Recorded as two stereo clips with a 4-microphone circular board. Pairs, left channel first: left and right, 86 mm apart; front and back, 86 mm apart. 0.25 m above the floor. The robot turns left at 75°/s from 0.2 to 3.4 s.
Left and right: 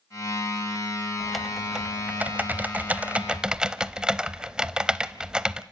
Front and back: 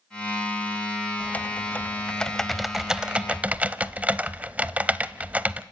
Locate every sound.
1.2 s typing on a keyboard: 15° left, 0.7 m; by 5.6 s 150° right, 0.7 m